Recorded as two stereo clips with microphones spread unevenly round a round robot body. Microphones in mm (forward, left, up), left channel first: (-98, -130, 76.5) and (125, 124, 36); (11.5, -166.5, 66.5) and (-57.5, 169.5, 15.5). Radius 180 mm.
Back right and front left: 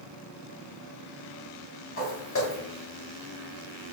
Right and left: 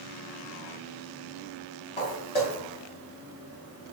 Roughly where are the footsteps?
Right.